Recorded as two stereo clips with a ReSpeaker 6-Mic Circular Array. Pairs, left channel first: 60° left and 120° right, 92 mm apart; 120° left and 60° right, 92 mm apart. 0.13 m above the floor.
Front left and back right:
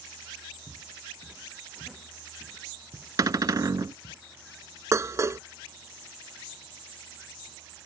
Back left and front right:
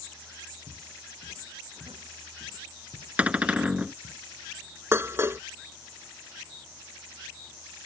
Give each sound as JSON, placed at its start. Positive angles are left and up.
{"t": 0.7, "sound": "footsteps", "azimuth_deg": -25}
{"t": 3.2, "sound": "a cupboard door", "azimuth_deg": -130}
{"t": 4.9, "sound": "dishes clattering", "azimuth_deg": -95}